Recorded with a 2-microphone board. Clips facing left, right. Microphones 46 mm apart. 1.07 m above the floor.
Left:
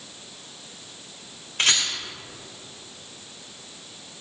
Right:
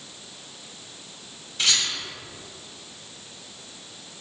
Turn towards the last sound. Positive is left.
turn(degrees=55)  # may be behind; listen again after turning